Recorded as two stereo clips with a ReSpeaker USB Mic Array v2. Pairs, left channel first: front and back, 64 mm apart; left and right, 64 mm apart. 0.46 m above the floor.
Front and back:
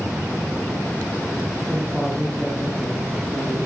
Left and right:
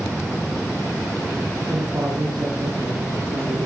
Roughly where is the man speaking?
Right.